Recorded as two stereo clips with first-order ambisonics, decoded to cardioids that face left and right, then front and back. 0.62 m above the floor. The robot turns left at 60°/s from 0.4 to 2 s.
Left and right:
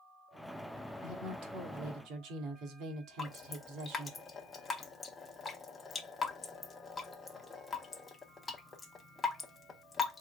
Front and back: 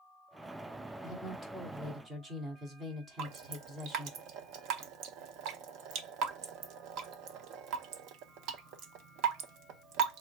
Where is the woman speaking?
55° right, 1.4 m; by 4.2 s 115° right, 1.4 m.